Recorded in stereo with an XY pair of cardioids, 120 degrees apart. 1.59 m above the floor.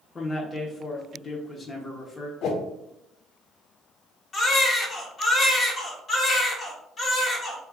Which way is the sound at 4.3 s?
30° left.